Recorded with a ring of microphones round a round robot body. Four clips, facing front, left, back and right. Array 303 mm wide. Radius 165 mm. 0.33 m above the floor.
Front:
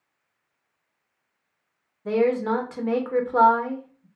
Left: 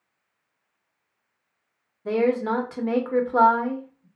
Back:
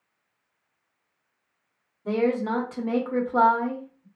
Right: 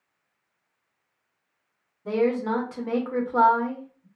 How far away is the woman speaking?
About 1.1 m.